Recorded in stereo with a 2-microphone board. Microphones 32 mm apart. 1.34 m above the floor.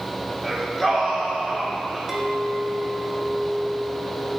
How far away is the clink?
About 1.7 m.